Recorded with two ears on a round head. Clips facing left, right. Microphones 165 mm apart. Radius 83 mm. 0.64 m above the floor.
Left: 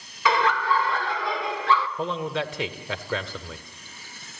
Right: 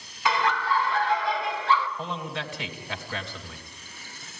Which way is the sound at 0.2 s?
70° left (ahead or behind).